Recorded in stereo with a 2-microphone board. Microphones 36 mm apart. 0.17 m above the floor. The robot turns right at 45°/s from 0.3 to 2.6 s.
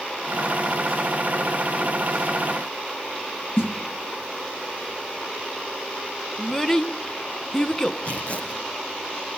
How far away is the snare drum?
About 2.5 m.